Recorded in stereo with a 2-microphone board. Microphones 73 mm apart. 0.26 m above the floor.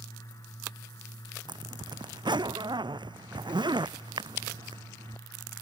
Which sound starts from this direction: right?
A zipper, at 1.5 s.